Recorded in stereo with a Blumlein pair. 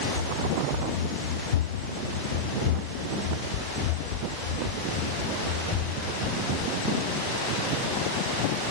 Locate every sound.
0.1 s running footsteps: 65° left; by 6.7 s 35° left